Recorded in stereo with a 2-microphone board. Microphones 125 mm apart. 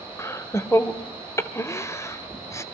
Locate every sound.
0.2 s laughter: 20° left (ahead or behind), 1.1 m